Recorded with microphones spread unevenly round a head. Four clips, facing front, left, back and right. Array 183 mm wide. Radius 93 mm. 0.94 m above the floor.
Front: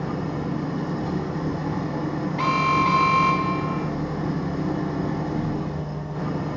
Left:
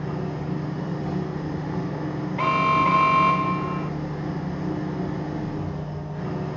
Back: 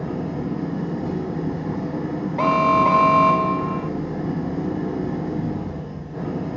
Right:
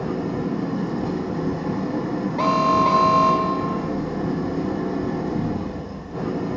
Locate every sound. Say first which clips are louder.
0.0 s an engine running: right 5 dB, back 1 dB; 115° right, 4.5 m
2.4 s an alarm: right 2 dB, back 5 dB; 155° right, 0.6 m